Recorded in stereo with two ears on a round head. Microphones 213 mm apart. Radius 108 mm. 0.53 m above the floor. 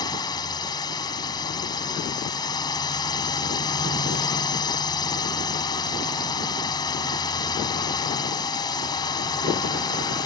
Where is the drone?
20° left (ahead or behind).